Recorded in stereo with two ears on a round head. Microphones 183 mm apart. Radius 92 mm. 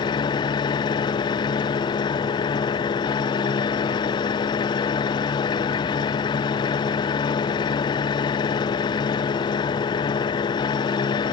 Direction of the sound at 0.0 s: 20° left (ahead or behind).